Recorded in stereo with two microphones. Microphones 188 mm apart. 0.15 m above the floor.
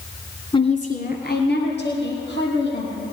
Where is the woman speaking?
25° left (ahead or behind), 1.1 m; by 3.0 s 80° left, 4.5 m.